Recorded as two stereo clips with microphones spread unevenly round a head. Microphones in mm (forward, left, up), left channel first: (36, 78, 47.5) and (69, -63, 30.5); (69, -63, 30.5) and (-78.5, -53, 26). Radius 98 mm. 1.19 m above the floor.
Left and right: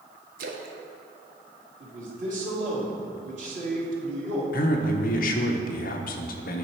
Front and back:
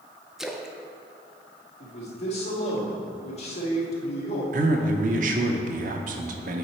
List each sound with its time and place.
0.4 s a splash: 95° right, 0.8 m
1.8 s a man speaking: 50° right, 2 m
4.5 s a man speaking: 140° left, 0.7 m